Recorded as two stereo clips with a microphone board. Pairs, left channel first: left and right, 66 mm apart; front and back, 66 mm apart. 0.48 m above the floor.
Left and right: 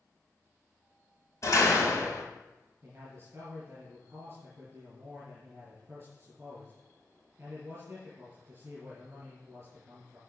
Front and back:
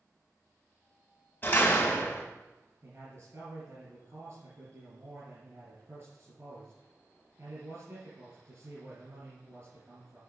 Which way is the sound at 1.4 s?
60° left.